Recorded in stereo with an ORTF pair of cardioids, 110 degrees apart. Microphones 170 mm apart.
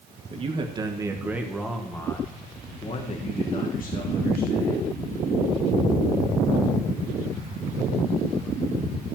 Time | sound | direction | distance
0.3 | a man speaking | 35° right | 1.6 m